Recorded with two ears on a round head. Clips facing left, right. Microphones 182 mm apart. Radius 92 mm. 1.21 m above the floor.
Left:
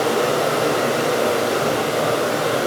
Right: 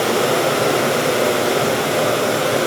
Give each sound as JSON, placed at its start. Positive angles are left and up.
{"t": 0.0, "sound": "running water", "side_deg": -35, "distance_m": 5.0}